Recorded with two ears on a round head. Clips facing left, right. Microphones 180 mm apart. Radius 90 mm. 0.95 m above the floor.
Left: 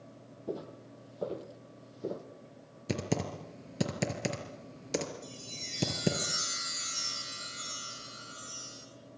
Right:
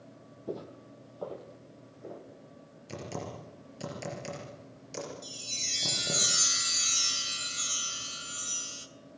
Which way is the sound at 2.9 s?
75° left (ahead or behind).